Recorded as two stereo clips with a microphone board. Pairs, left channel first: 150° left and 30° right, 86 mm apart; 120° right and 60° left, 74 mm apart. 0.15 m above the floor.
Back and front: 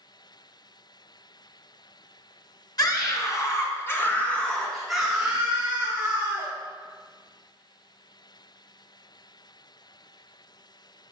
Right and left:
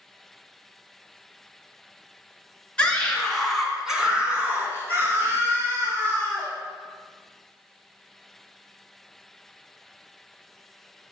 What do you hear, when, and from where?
2.8 s a scream: 170° left, 2.5 m; by 6.5 s 25° left, 3 m